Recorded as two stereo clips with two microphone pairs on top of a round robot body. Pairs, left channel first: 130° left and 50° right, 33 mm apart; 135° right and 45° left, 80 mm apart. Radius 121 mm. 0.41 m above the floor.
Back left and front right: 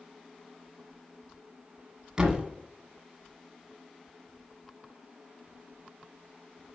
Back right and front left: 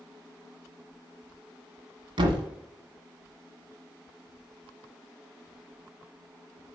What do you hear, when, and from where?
2.2 s a thud: 25° left, 1.5 m